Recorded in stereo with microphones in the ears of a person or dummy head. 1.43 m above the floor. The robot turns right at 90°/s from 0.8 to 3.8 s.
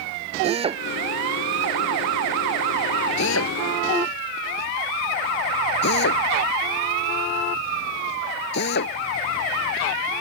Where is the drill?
35° right (ahead or behind); by 8.9 s 55° left (ahead or behind).